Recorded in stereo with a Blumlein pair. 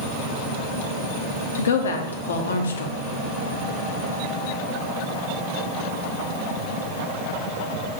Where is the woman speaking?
65° left, 0.6 m.